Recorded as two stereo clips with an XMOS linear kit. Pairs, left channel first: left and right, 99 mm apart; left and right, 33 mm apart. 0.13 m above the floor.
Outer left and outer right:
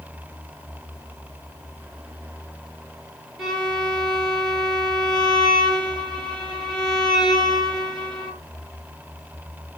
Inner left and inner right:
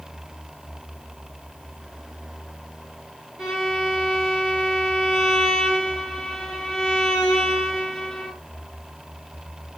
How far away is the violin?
About 1.7 m.